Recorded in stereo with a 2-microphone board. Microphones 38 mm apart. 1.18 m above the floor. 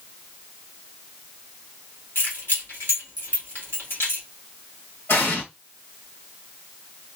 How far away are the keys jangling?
About 1.7 m.